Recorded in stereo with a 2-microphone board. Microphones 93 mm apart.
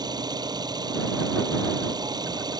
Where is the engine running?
45° right (ahead or behind).